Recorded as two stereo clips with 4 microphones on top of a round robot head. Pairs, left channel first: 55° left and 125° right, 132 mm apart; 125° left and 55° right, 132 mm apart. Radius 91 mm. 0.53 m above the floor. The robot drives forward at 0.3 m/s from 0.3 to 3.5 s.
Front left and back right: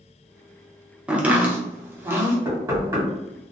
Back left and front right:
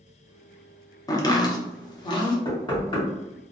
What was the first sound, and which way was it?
Chopping, 160° left.